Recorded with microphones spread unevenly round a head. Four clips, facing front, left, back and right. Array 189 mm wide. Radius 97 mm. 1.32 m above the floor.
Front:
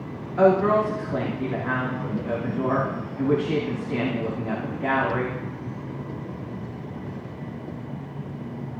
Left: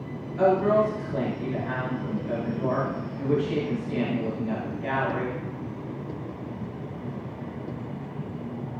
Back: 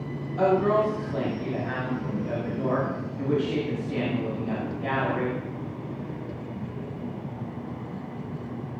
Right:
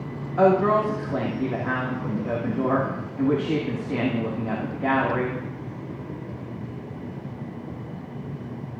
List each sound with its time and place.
0.4 s a woman speaking: 70° right, 3 m